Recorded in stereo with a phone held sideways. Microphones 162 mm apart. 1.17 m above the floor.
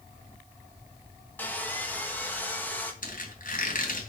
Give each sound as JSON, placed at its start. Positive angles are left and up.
{"t": 1.4, "sound": "sawing", "side_deg": 10, "distance_m": 1.9}
{"t": 3.0, "sound": "a squeak", "side_deg": 65, "distance_m": 3.0}